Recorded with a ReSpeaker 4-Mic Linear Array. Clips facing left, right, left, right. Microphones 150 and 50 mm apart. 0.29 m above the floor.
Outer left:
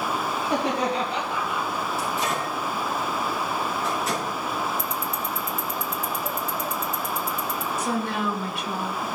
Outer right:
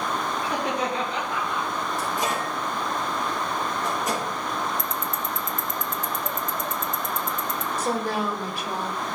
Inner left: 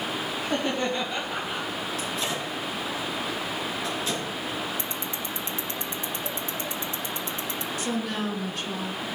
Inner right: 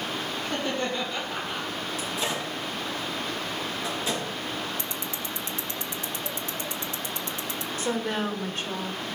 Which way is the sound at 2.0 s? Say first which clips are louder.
Outer right 1 dB, inner right 2 dB; 15° right (ahead or behind).